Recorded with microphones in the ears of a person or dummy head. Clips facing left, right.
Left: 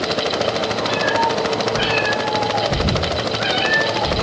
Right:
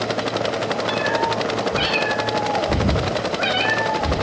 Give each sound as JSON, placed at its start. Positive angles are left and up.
{"t": 0.9, "sound": "a cat meowing", "side_deg": -40, "distance_m": 1.3}